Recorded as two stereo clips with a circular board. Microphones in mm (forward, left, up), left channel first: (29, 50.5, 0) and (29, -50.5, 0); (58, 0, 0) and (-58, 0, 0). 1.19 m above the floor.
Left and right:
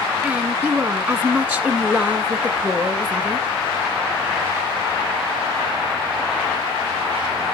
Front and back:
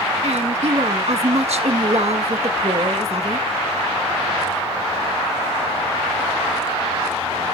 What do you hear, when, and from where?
0.2 s a woman speaking: 160° right, 1.5 m